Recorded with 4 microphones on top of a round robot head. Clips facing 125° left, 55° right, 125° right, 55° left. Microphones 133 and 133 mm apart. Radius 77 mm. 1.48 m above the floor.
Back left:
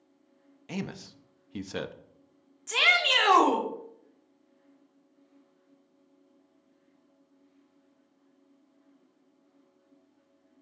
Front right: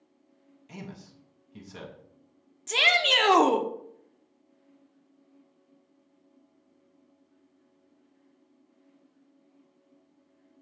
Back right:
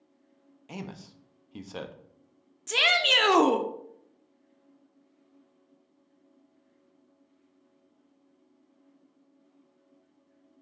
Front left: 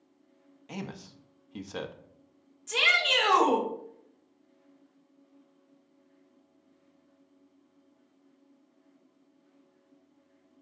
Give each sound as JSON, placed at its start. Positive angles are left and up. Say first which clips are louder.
{"t": 0.7, "sound": "a man speaking", "louder": "back left 7 dB, front left 1 dB", "azimuth_deg": 150, "distance_m": 0.6}
{"t": 2.7, "sound": "a shout", "louder": "front right 2 dB, back right 2 dB", "azimuth_deg": -110, "distance_m": 1.0}